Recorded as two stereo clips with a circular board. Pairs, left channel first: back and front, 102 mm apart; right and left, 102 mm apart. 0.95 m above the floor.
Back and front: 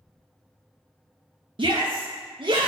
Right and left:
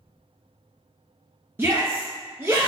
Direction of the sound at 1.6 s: 25° left.